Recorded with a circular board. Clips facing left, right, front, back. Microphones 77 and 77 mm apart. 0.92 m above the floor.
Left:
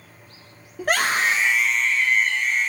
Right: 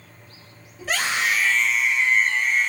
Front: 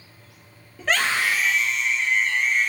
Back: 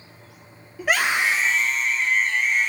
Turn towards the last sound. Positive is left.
turn(degrees=-125)